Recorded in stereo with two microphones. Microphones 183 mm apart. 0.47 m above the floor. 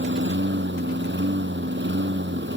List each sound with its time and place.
0.0 s a lawn mower: 75° right (ahead or behind)